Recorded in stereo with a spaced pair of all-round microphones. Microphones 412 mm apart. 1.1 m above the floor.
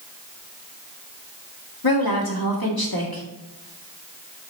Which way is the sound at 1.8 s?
55° left (ahead or behind).